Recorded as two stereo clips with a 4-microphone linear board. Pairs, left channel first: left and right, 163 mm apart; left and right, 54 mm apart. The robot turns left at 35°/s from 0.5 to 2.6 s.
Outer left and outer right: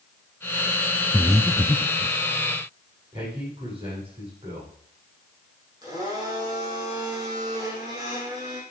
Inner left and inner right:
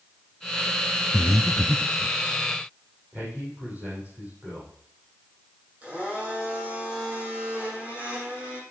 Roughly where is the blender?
Right.